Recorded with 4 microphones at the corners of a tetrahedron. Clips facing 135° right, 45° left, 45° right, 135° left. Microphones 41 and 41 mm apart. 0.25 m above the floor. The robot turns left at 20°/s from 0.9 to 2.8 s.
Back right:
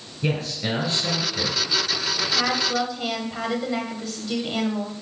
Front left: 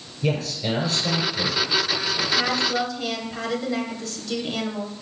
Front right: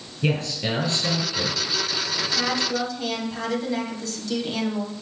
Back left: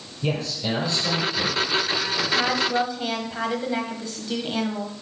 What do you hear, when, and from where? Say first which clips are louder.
0.2 s a man speaking: front left 1 dB, front right 2 dB; 85° right, 4 m; by 1.6 s 100° right, 4 m
2.3 s a woman speaking: even, back left 3 dB; 165° left, 1.1 m; by 4.9 s 160° left, 1.1 m